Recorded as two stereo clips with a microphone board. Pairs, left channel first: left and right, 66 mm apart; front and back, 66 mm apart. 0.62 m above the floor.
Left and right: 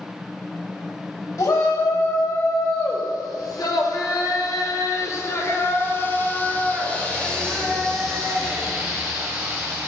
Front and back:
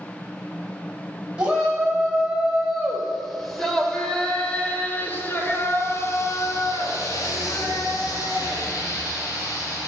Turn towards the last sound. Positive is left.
turn(degrees=-10)